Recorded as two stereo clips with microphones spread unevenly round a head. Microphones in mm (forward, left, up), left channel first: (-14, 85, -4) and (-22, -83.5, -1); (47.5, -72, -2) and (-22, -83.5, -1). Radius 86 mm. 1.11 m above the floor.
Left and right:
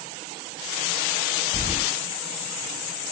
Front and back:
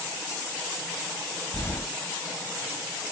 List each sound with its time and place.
1.5 s keys jangling: 30° right, 4.5 m